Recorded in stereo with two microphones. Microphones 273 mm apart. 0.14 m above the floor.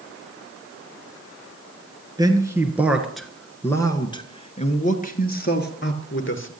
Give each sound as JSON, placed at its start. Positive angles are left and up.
{"t": 2.2, "sound": "a man speaking", "side_deg": -15, "distance_m": 2.0}